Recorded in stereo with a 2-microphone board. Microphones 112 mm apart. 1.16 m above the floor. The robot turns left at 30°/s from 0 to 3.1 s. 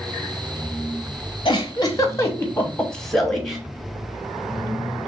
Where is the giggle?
45° left (ahead or behind), 1.0 m; by 3.6 s 5° left (ahead or behind), 1.0 m.